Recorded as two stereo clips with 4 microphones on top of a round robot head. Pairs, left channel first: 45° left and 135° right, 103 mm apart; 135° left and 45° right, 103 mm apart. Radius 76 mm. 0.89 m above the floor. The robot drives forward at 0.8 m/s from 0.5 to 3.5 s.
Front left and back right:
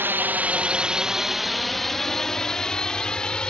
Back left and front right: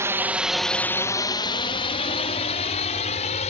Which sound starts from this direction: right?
A drone, at 0.0 s.